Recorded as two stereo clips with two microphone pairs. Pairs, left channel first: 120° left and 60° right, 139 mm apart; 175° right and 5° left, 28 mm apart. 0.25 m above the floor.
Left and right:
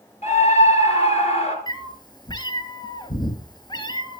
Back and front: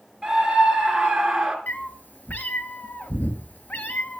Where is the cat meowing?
Straight behind, 1.1 m.